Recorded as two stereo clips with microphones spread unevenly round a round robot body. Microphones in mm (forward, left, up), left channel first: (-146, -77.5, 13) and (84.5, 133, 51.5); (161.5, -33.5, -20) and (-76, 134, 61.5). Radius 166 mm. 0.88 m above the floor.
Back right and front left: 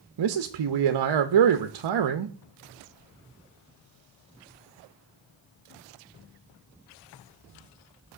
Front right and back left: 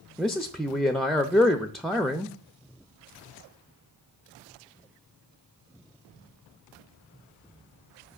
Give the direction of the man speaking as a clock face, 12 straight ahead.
10 o'clock.